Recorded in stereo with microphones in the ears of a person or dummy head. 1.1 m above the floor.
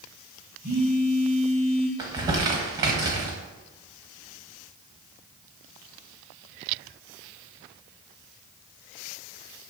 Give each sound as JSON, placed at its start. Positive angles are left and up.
{"t": 0.6, "sound": "a phone buzzing", "side_deg": -50, "distance_m": 2.0}
{"t": 2.0, "sound": "crumpling", "side_deg": -20, "distance_m": 1.0}